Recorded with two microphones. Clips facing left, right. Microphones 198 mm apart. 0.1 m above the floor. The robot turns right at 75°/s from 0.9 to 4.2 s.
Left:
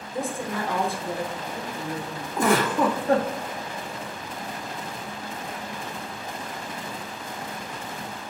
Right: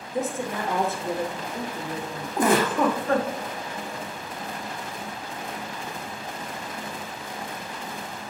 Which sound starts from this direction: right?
A woman speaking, at 0.1 s.